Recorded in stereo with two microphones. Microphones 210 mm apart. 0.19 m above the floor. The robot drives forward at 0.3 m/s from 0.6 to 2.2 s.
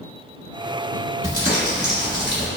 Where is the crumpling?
5° left (ahead or behind), 1.6 m.